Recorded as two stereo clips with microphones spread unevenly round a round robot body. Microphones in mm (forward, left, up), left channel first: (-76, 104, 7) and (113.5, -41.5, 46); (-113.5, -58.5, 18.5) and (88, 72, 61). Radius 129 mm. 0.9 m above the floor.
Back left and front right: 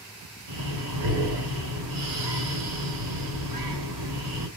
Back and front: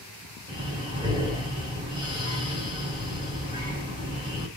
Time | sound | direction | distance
0.5 | breathing | 40° right | 2.5 m